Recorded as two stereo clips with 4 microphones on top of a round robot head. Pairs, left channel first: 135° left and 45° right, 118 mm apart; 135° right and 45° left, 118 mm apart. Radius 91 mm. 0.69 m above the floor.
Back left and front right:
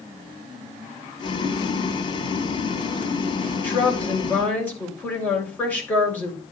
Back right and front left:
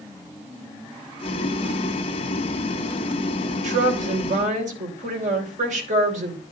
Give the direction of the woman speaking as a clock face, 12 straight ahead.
10 o'clock.